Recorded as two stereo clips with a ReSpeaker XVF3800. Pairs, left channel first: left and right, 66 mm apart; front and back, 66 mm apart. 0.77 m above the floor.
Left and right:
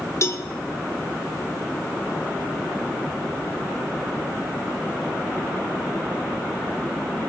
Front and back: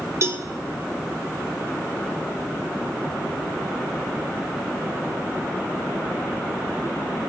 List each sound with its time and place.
0.2 s a cowbell: 135° left, 0.6 m